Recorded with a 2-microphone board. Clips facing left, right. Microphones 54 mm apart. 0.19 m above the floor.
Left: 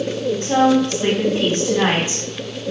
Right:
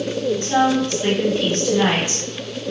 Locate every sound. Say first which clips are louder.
0.4 s a woman speaking: left 4 dB; 25° left (ahead or behind), 1.4 m